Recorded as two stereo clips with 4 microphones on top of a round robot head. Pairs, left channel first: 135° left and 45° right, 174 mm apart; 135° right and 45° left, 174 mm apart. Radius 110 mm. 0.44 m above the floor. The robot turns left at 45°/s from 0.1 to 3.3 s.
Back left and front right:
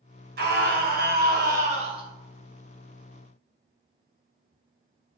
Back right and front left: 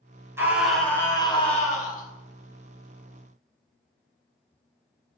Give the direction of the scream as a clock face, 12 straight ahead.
1 o'clock.